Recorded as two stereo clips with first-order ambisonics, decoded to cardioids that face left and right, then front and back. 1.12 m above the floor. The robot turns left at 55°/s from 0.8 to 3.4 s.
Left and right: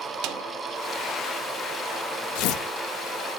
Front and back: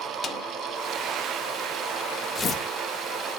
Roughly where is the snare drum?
Right.